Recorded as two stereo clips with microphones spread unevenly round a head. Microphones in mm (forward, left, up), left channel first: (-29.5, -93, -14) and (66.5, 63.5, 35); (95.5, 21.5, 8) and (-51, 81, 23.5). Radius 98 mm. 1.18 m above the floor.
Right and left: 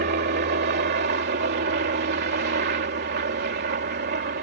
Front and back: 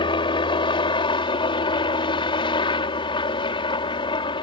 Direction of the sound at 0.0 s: 30° left.